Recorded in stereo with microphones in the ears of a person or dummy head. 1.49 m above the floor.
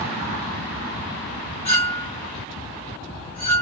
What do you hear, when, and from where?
1.6 s a clink: 10° left (ahead or behind), 1.2 m